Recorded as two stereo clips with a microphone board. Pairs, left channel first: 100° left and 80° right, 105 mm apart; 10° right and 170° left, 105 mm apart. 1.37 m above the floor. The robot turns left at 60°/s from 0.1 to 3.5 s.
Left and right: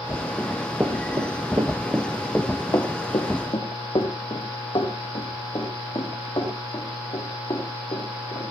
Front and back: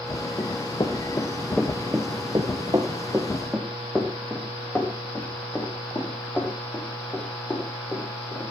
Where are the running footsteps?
25° left, 2 m; by 8.5 s 60° left, 7.5 m.